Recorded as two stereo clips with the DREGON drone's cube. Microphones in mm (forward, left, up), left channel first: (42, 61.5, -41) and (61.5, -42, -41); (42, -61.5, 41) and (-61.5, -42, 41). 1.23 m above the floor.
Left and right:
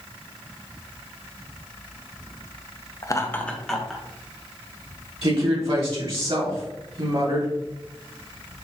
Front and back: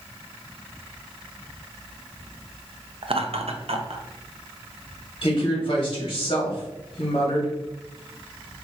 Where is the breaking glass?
No breaking glass in this recording.